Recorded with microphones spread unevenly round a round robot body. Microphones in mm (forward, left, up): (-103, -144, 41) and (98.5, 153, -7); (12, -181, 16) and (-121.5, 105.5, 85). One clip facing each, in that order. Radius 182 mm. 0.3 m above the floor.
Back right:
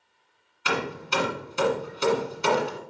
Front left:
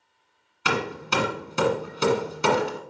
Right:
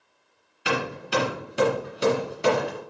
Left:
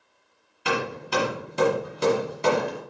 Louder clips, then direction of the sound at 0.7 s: Front left 2 dB, even; 25° left.